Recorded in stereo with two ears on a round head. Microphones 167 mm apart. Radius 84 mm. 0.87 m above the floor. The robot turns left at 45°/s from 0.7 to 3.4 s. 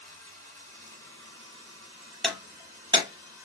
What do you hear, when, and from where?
0.0 s running water: 45° right, 1.2 m; by 3.5 s 165° right, 1.2 m
2.2 s breaking glass: centre (ahead or behind), 0.9 m; by 3.5 s 35° right (ahead or behind), 0.9 m